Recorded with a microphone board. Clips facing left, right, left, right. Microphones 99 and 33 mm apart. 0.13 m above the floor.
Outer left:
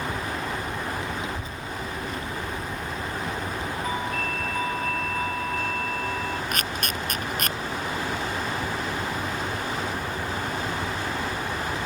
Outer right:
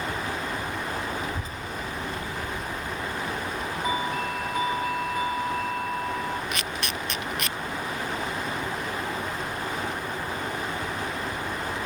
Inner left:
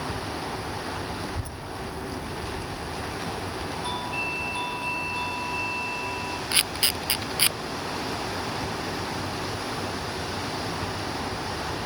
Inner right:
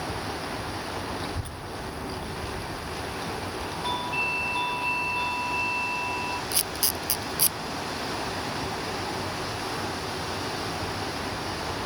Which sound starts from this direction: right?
A child speaking, at 1.2 s.